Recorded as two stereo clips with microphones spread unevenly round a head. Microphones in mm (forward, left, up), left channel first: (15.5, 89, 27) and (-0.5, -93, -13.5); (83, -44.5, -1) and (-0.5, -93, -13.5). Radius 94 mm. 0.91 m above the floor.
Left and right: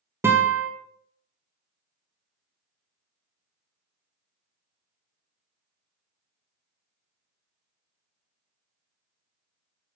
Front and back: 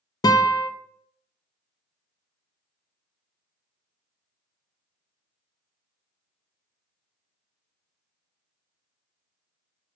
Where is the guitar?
20° right, 0.5 m.